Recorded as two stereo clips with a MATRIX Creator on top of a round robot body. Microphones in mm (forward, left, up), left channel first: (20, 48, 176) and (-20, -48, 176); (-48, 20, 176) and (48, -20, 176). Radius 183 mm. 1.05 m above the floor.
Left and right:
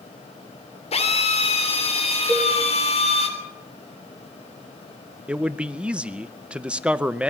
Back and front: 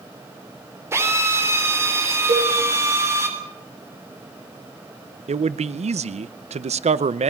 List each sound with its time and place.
0.9 s a drill: 45° left, 3.5 m
2.3 s a cowbell: 5° right, 4.5 m
5.3 s a man speaking: 30° right, 0.7 m